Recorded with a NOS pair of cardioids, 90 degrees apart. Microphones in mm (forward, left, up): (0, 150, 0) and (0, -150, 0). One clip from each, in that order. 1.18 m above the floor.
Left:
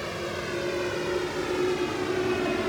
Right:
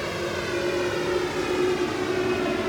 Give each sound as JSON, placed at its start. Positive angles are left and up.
{"t": 0.0, "sound": "a vehicle", "azimuth_deg": -25}